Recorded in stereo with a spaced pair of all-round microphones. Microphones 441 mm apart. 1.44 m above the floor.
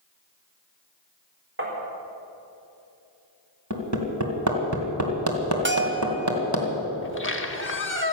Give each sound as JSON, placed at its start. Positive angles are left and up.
{"t": 1.6, "sound": "tapping", "side_deg": -25, "distance_m": 4.0}
{"t": 3.7, "sound": "hammering", "side_deg": -40, "distance_m": 2.5}
{"t": 5.7, "sound": "a bell", "side_deg": -25, "distance_m": 1.2}
{"t": 7.0, "sound": "a squeak", "side_deg": 25, "distance_m": 1.0}